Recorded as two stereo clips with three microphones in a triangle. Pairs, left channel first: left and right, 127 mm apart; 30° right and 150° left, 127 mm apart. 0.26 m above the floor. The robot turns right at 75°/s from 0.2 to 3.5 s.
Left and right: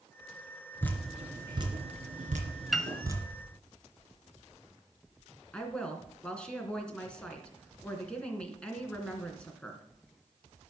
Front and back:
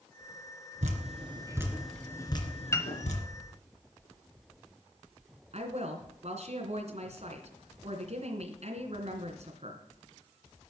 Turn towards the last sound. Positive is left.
turn(degrees=170)